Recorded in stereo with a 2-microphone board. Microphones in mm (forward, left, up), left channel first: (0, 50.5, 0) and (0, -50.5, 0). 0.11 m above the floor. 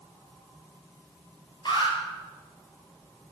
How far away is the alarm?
About 3 m.